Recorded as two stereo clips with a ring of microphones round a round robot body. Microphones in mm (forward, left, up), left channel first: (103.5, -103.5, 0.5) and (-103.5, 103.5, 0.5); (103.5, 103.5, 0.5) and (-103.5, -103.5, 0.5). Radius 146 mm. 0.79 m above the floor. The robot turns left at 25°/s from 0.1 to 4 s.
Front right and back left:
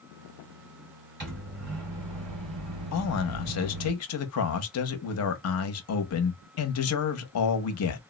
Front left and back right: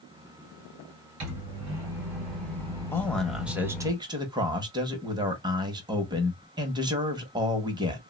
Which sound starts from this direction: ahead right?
A man speaking, at 2.9 s.